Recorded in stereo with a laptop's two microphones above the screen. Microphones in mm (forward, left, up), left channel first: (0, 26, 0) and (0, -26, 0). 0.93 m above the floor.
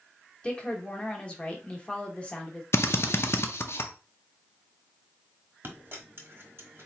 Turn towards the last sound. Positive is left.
turn(degrees=-45)  # may be behind; listen again after turning